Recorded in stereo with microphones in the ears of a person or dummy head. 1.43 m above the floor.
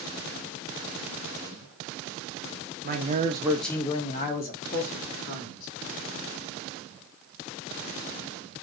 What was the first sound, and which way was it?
A man speaking, 45° right (ahead or behind).